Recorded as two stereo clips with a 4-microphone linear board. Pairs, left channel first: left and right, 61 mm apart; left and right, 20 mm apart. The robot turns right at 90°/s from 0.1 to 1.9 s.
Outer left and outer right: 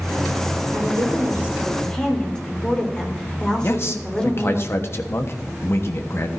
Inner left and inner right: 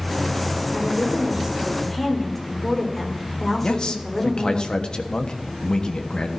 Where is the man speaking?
45° left (ahead or behind), 1.2 m.